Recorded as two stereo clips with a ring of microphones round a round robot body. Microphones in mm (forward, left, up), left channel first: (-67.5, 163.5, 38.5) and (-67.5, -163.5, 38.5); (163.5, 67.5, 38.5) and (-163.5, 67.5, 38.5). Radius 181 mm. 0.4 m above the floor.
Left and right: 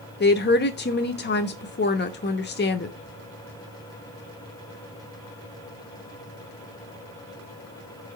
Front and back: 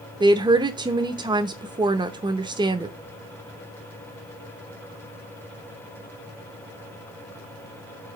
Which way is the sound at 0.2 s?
115° left.